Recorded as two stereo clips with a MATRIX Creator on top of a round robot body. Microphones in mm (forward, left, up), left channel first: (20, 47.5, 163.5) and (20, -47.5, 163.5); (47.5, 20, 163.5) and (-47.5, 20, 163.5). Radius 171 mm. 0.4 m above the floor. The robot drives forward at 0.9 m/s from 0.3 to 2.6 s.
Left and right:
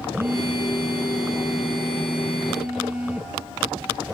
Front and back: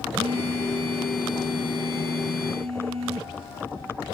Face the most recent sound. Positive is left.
turn(degrees=-170)